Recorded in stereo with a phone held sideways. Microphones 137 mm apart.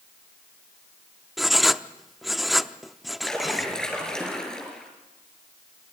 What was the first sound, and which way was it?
Writing, centre (ahead or behind).